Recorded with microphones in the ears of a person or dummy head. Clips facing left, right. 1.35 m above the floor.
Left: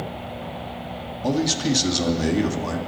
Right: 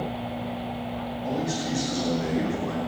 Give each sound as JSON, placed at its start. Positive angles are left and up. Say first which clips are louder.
{"t": 1.2, "sound": "a man speaking", "louder": "left 7 dB", "side_deg": 90, "distance_m": 2.5}